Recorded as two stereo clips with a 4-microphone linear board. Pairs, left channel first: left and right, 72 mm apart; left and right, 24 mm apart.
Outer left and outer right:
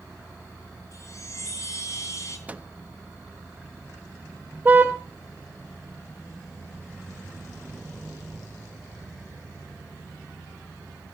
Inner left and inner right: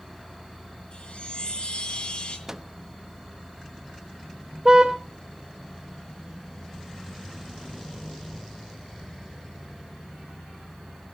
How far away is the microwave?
About 0.9 m.